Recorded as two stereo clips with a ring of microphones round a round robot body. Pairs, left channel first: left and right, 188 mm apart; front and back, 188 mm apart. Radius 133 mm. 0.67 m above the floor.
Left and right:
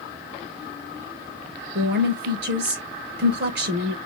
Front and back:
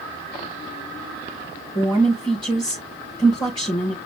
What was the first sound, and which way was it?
A woman speaking, 75° right.